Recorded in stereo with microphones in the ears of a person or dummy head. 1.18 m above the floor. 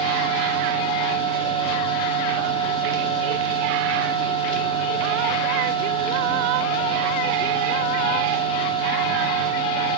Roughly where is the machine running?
Left.